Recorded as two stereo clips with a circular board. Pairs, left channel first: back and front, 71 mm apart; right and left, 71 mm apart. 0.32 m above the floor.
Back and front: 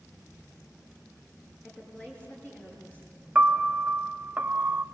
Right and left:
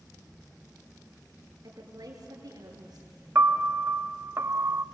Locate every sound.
1.6 s a woman speaking: 115° left, 6 m
3.4 s a piano: 55° left, 0.5 m